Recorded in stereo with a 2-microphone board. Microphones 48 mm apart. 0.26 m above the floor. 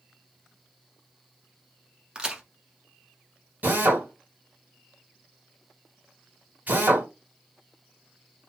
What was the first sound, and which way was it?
A crack, 20° right (ahead or behind).